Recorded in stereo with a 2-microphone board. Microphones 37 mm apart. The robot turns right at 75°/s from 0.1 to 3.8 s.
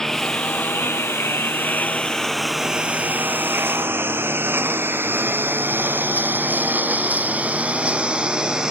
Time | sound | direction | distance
0.0 | a lawn mower | 15° left (ahead or behind) | ?